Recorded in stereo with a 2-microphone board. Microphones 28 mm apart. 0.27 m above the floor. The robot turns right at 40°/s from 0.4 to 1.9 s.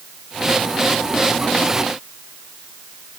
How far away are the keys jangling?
I don't hear keys jangling.